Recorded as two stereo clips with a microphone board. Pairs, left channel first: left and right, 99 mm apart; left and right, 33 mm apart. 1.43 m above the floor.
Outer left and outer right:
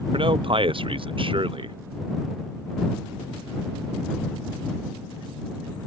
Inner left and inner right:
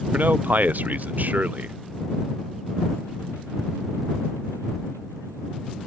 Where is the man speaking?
60° right (ahead or behind).